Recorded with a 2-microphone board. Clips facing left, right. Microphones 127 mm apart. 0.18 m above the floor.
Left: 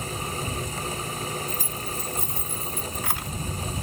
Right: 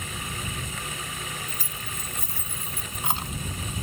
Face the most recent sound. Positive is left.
turn(degrees=-35)  # may be behind; listen again after turning